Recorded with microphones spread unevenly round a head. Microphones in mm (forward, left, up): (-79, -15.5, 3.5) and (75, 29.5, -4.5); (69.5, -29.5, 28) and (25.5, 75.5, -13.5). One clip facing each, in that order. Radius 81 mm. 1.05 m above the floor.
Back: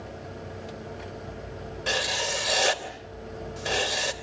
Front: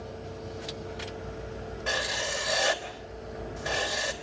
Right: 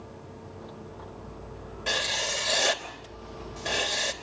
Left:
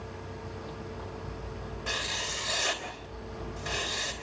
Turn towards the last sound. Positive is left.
turn(degrees=-115)